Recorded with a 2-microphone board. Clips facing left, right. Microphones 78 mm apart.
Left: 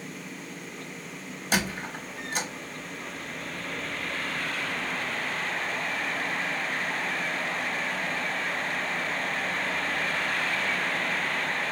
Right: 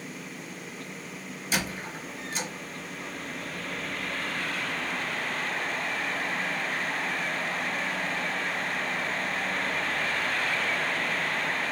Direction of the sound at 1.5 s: 60° left (ahead or behind).